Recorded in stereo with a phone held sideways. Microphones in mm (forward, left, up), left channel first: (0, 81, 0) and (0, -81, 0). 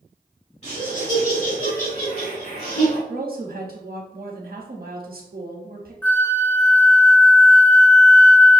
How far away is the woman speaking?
About 0.8 m.